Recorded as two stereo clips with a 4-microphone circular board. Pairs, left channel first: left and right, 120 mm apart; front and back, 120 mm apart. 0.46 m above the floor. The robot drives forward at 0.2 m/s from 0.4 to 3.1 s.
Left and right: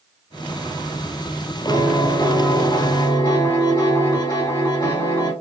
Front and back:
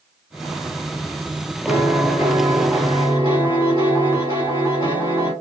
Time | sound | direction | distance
1.7 | a piano | 130° left | 2.0 m